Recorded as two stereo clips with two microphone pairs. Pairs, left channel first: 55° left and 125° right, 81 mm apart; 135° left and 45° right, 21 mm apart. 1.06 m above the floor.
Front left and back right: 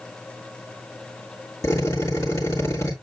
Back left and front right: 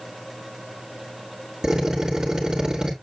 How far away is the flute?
No flute in this recording.